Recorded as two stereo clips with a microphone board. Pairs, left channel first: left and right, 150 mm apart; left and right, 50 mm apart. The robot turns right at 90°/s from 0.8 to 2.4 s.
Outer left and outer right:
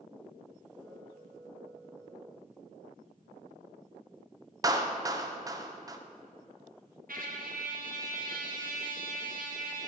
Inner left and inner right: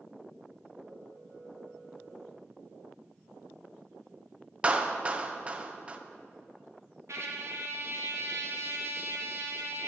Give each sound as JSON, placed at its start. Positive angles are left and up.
{"t": 4.6, "sound": "a clap", "side_deg": -25, "distance_m": 0.5}
{"t": 7.1, "sound": "a trumpet", "side_deg": -70, "distance_m": 0.9}